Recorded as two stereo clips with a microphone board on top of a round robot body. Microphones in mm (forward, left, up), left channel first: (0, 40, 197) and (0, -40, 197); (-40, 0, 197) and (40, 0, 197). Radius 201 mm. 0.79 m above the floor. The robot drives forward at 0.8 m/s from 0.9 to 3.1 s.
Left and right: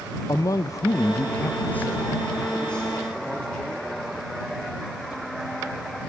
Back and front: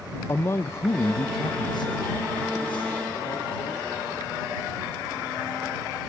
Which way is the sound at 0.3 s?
125° left.